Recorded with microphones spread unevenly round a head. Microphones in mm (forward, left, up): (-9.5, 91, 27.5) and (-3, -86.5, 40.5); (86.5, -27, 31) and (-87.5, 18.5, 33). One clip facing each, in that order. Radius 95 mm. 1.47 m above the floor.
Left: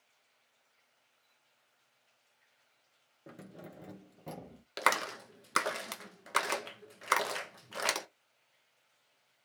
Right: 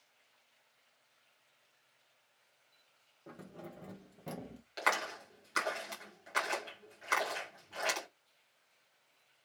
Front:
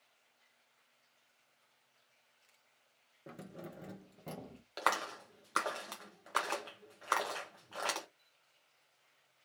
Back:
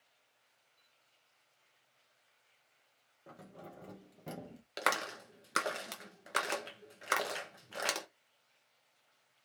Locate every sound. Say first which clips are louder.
3.3 s keys jangling: even, front 3 dB; 35° left, 0.8 m; by 4.6 s 140° right, 0.7 m
4.8 s a clap: left 2 dB, back 1 dB; 105° left, 0.8 m